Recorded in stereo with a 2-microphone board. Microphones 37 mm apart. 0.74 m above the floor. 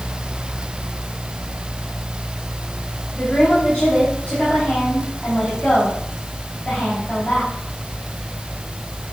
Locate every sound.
3.1 s a woman speaking: 30° left (ahead or behind), 4.5 m